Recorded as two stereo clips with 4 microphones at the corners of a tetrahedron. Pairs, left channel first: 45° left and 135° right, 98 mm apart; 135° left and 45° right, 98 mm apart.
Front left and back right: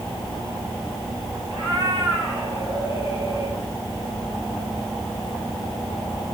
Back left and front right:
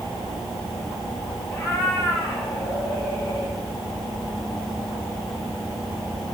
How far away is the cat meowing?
About 5 m.